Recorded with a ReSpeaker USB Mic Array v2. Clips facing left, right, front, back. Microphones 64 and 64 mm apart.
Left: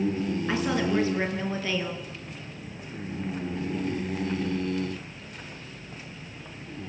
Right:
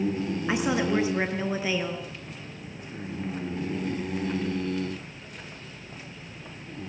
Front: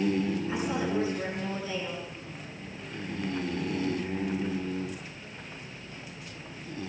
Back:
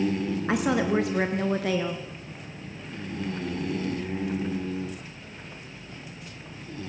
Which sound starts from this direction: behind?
A woman speaking, at 0.5 s.